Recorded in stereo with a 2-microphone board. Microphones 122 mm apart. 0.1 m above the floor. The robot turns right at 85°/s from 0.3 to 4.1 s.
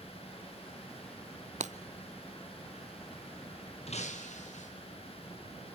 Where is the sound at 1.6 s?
75° right (ahead or behind), 0.7 m.